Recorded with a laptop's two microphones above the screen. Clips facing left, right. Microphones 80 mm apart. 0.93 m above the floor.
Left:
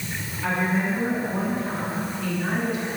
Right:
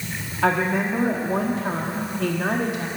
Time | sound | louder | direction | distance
0.4 | a woman speaking | right 3 dB | 75° right (ahead or behind) | 1.4 m